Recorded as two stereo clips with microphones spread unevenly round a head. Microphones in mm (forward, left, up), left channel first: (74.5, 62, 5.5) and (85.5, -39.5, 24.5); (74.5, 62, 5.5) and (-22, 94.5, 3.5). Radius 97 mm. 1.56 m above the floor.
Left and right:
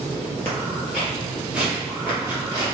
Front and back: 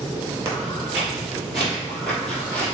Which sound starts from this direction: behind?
Footsteps, at 0.5 s.